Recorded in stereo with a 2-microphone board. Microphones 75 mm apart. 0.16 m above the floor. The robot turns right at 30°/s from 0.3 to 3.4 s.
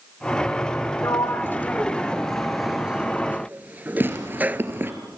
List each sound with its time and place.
1.0 s a sliding door: 45° left (ahead or behind), 0.6 m; by 4.6 s 25° right (ahead or behind), 0.6 m
4.0 s tearing paper: 30° right (ahead or behind), 2.5 m